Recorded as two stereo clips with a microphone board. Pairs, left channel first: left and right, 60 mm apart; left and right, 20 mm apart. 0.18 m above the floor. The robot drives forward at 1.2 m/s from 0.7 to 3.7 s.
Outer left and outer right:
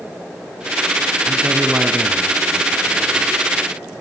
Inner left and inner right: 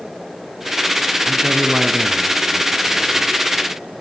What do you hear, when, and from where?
1.3 s a man speaking: 20° right (ahead or behind), 1.2 m; by 3.4 s 10° right (ahead or behind), 3 m